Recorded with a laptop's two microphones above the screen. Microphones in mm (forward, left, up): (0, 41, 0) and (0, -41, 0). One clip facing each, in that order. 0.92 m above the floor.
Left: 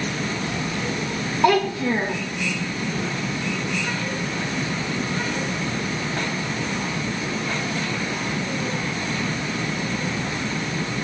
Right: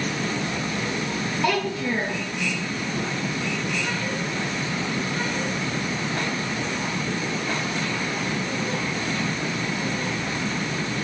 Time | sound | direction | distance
1.4 | a child speaking | 40° left (ahead or behind) | 0.5 m